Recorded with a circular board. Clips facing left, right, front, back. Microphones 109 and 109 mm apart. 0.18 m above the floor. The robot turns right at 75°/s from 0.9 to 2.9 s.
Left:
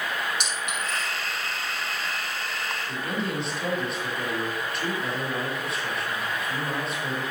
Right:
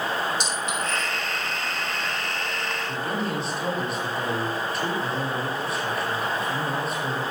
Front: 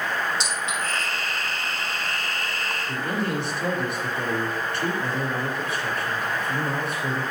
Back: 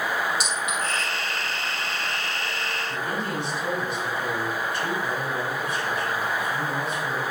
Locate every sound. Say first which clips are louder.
0.4 s a clink: right 3 dB, back 1 dB; 65° left, 5 m; by 1.1 s 75° left, 5 m
2.9 s a man speaking: right 2 dB, front 4 dB; straight ahead, 4.5 m